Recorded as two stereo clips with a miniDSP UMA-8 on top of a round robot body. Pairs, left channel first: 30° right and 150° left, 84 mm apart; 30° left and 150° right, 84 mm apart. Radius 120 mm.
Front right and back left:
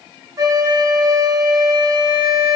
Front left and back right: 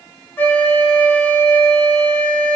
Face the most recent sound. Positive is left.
turn(degrees=100)